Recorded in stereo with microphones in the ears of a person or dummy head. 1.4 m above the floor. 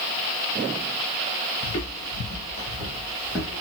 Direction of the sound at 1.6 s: 25° left (ahead or behind).